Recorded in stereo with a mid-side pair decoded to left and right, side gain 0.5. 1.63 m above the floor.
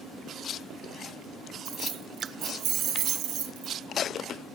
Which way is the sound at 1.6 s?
70° right.